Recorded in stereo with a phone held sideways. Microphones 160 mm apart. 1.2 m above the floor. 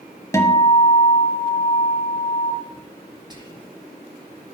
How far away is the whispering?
About 2.5 m.